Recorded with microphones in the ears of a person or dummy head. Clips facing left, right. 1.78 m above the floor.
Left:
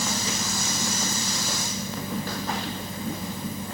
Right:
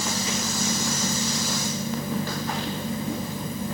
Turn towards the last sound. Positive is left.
No sound to turn to.